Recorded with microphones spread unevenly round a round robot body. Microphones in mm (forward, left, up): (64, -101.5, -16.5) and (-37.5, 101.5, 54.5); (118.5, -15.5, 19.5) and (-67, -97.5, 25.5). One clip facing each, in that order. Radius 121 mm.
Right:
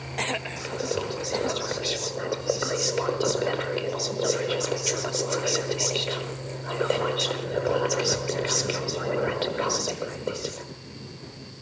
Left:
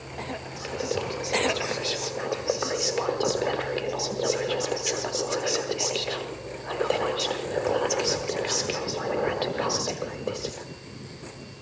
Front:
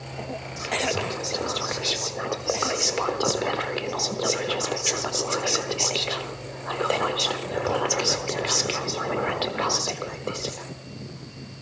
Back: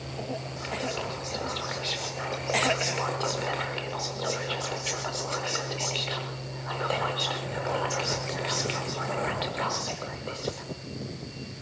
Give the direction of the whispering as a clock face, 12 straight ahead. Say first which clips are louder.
Left 1 dB, front 9 dB; 12 o'clock.